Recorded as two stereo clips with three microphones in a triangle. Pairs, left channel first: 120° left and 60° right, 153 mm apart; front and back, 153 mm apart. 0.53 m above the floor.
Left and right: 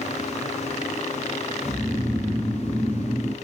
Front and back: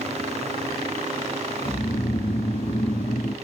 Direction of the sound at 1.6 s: 40° left.